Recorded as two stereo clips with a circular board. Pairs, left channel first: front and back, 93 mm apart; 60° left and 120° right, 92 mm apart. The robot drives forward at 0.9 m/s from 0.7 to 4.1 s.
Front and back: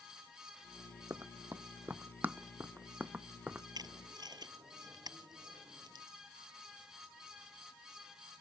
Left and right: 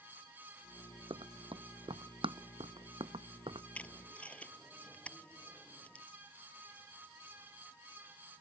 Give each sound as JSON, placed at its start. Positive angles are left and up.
{"t": 1.1, "sound": "running footsteps", "azimuth_deg": -115}
{"t": 3.8, "sound": "tape being pulled", "azimuth_deg": 135}